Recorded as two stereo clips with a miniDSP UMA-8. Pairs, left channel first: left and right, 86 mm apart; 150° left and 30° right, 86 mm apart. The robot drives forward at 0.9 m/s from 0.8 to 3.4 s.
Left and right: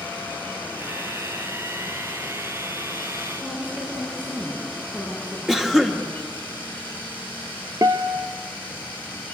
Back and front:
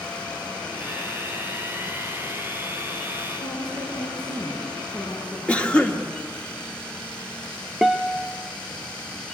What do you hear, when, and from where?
3.4 s a woman speaking: 165° right, 5 m
5.5 s a cough: 165° right, 1.3 m
7.8 s a guitar: 120° right, 0.7 m